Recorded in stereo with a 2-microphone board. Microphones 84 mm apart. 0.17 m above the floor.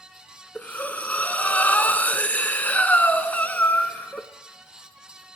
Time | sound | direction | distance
0.6 | breathing | 20° left (ahead or behind) | 0.8 m